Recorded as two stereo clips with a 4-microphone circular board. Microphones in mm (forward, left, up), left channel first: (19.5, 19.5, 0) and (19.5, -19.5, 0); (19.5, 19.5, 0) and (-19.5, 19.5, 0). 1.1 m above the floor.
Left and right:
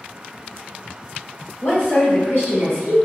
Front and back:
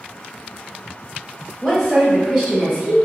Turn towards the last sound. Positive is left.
turn(degrees=155)